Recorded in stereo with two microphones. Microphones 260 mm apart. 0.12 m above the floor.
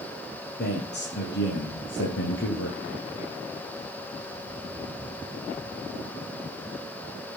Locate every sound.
0.6 s a man speaking: 40° left (ahead or behind), 3 m; by 2.8 s 50° left (ahead or behind), 2 m